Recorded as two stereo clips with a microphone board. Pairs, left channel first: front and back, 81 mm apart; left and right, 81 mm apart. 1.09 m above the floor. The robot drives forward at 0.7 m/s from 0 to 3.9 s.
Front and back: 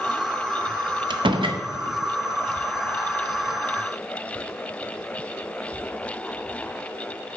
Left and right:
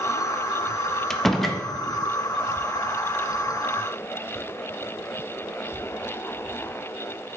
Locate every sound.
1.1 s a door slam: 175° left, 0.6 m; by 1.6 s straight behind, 0.9 m